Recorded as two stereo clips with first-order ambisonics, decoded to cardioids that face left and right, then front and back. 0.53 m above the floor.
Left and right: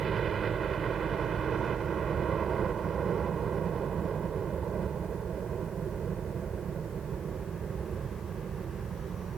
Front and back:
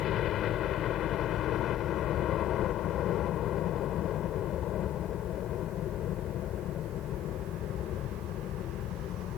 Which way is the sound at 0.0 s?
35° right.